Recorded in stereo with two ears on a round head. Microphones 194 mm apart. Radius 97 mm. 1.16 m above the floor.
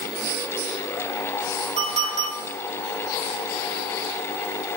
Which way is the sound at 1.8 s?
35° right (ahead or behind).